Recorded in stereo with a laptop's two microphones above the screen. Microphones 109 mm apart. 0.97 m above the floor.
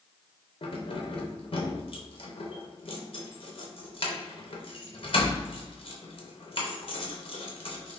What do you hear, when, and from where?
0.6 s keys jangling: 55° left (ahead or behind), 0.5 m